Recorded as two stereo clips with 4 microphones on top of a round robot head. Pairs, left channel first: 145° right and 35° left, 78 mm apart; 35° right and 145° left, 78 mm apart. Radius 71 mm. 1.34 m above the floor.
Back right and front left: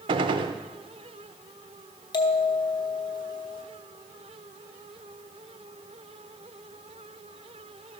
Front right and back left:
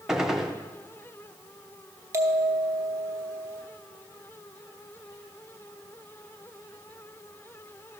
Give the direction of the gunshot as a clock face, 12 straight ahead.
10 o'clock.